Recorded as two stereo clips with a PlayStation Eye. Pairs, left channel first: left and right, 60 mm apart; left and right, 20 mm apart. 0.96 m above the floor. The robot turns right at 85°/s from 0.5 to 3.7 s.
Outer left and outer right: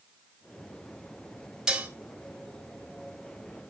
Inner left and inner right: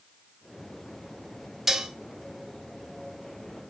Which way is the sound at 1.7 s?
10° right (ahead or behind).